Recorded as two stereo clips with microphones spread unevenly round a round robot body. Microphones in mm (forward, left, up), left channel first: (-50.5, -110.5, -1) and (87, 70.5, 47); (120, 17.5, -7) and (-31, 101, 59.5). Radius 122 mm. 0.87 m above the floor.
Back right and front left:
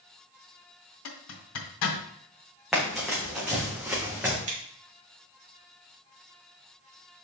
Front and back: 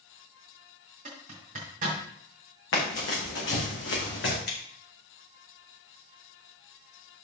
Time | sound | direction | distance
1.1 | a zipper | 145° right | 2 m
2.7 | running footsteps | 35° right | 4 m
4.5 | scissors | 10° right | 4.5 m